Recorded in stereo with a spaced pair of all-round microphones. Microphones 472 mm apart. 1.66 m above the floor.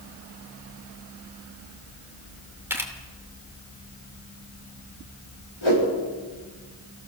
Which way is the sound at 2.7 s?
5° right (ahead or behind).